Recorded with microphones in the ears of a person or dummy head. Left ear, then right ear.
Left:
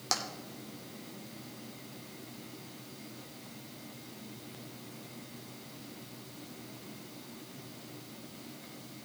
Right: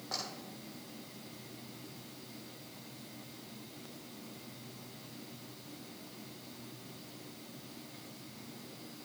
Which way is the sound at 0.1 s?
70° left (ahead or behind).